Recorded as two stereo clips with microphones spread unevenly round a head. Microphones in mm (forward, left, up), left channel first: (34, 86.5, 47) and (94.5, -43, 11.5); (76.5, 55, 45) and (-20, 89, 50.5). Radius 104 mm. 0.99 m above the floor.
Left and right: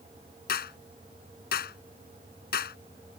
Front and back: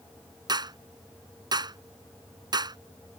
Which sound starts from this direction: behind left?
A clap, at 0.5 s.